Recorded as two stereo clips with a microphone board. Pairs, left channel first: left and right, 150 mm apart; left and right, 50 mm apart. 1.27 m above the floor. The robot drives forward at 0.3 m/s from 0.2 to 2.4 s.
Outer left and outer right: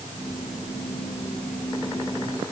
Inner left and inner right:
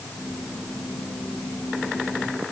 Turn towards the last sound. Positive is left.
No sound to turn to.